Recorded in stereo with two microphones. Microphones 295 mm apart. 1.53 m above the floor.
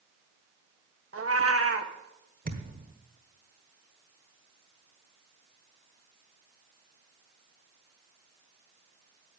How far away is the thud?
About 1.4 m.